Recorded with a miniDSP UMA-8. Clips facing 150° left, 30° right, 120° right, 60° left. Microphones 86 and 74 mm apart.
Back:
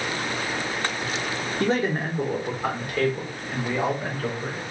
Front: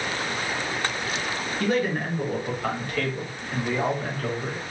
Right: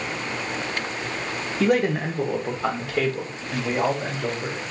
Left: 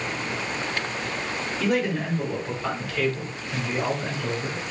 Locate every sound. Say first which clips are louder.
1.6 s a man speaking: back 1 dB, right 4 dB; 155° right, 0.6 m; by 4.6 s 130° right, 2.5 m